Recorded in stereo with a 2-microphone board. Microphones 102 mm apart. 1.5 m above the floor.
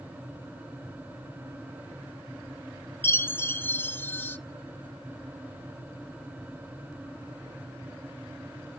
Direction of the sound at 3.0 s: 20° left (ahead or behind).